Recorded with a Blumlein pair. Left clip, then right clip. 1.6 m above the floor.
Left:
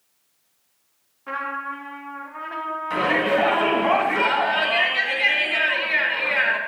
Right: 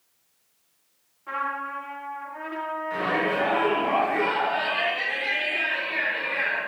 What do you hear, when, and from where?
1.3 s a trumpet: 70° left, 1.3 m
2.9 s a shout: 40° left, 2.5 m